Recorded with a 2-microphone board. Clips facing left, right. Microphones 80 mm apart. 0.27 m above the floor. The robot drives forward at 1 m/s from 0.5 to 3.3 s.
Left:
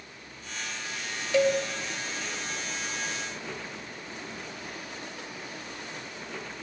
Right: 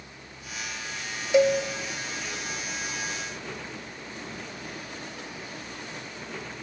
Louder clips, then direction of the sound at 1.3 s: Right 3 dB; 20° right (ahead or behind).